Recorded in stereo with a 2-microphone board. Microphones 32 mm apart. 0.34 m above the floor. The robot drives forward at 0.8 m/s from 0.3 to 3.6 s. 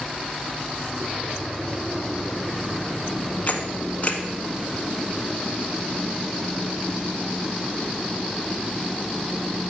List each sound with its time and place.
3.5 s a camera shutter: 45° left (ahead or behind), 1.1 m; by 4.2 s 40° left (ahead or behind), 1.2 m